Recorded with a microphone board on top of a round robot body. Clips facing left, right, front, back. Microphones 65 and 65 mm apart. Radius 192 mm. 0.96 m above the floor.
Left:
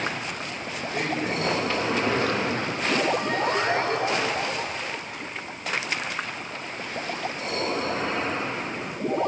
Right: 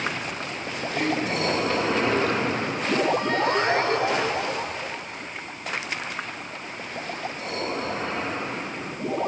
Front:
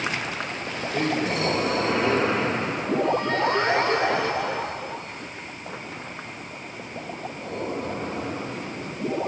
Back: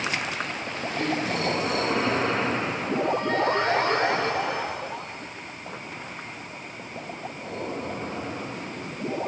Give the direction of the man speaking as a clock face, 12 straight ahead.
12 o'clock.